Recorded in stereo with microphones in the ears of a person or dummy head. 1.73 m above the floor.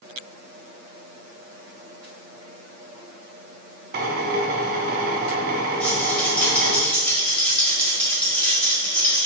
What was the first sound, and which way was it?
A drill, 55° right (ahead or behind).